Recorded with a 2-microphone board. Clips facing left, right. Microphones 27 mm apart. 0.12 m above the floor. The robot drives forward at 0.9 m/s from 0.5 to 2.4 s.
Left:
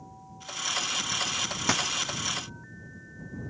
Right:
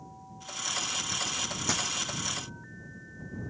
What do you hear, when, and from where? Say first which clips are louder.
1.7 s a dropped coin: left 5 dB; 50° left (ahead or behind), 0.9 m; by 1.9 s 60° left (ahead or behind), 0.8 m